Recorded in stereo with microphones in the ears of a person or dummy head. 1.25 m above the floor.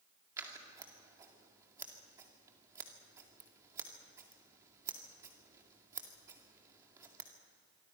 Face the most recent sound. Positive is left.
turn(degrees=-20)  # may be behind; listen again after turning